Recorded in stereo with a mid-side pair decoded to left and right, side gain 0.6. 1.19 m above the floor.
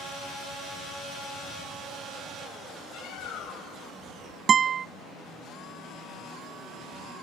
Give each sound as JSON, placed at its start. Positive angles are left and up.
{"t": 2.9, "sound": "a bird", "azimuth_deg": 70, "distance_m": 0.6}
{"t": 4.5, "sound": "a guitar", "azimuth_deg": -45, "distance_m": 0.8}